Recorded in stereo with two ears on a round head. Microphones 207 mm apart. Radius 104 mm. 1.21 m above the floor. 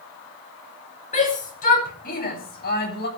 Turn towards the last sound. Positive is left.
turn(degrees=45)  # may be behind; listen again after turning